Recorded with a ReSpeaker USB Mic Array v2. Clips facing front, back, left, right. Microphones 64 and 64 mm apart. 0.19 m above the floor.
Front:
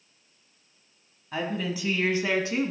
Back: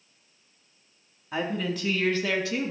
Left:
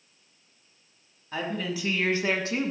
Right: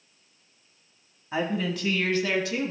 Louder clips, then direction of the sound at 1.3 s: Back 1 dB, right 3 dB; 110° right.